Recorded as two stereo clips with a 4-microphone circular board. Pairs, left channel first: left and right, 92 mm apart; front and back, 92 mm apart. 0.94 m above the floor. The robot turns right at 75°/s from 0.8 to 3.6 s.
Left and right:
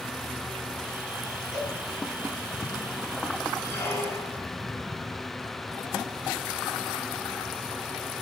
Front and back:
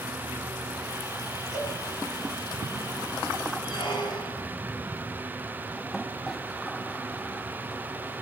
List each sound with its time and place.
1.5 s a cowbell: 55° left, 4.5 m; by 1.8 s 75° left, 4.5 m
3.6 s a squeak: 30° left, 2.5 m